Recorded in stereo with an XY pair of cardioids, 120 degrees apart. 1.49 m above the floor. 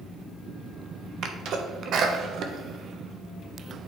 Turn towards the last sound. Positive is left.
turn(degrees=-60)